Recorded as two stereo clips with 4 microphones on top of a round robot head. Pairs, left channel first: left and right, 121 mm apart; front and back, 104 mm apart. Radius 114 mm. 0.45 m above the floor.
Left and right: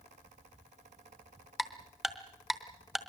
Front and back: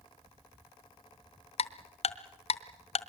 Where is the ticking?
5° right, 1.0 m.